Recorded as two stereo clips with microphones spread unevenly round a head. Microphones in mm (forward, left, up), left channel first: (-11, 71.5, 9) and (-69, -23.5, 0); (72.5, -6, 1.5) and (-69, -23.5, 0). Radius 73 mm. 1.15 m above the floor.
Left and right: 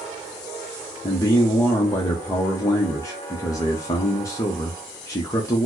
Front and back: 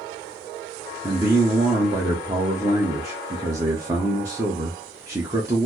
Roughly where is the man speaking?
Behind left.